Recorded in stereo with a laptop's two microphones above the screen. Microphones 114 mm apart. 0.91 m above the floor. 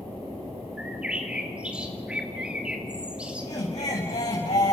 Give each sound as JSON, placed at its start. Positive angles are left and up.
{"t": 0.8, "sound": "a bird", "side_deg": -10, "distance_m": 2.5}
{"t": 3.4, "sound": "laughter", "side_deg": 75, "distance_m": 5.5}